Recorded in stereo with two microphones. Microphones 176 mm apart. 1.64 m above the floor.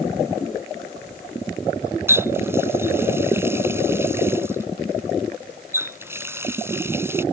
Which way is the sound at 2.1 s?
15° right (ahead or behind).